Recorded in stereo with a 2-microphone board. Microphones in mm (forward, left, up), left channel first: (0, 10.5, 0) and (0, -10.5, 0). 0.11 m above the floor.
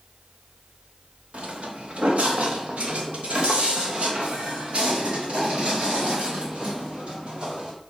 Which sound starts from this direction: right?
Footsteps, at 1.3 s.